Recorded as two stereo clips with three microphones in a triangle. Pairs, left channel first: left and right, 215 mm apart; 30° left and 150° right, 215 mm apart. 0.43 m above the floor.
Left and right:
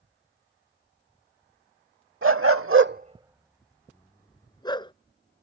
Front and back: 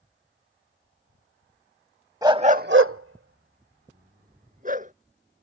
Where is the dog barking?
75° right; by 4.9 s 160° left.